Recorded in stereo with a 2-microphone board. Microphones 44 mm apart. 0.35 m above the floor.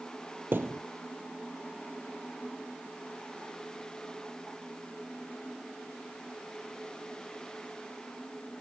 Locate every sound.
0.5 s a thud: 50° right (ahead or behind)